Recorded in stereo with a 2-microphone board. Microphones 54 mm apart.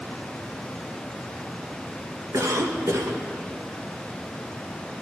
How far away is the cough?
About 1.5 m.